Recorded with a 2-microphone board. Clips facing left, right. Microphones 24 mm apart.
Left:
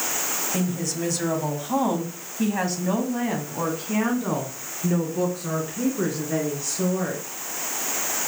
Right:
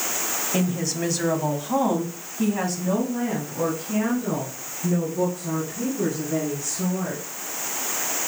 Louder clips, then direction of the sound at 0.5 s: Right 4 dB; 25° right (ahead or behind).